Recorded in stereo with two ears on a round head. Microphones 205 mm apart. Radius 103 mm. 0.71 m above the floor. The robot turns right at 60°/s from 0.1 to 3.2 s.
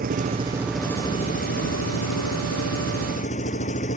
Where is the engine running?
40° right; by 4.0 s 145° left.